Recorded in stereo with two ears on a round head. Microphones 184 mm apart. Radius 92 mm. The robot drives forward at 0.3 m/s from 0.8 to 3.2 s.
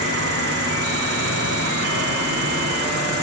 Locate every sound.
0.0 s an insect: 60° right (ahead or behind), 6.5 m; by 3.2 s 55° right (ahead or behind), 7 m